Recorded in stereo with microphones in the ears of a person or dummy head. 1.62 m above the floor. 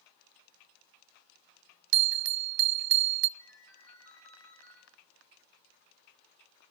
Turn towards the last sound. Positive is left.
turn(degrees=75)  # may be behind; listen again after turning